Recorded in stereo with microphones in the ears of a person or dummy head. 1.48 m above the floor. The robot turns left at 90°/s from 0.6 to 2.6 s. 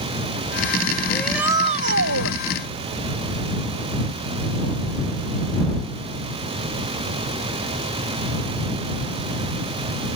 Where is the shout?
20° left; by 2.4 s 95° right.